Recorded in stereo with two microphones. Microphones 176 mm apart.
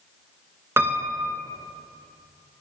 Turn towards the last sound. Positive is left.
turn(degrees=-15)  # may be behind; listen again after turning